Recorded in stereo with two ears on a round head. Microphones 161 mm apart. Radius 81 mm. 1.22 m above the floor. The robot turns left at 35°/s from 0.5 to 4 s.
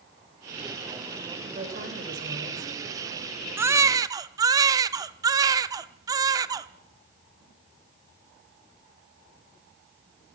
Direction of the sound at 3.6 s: 15° right (ahead or behind).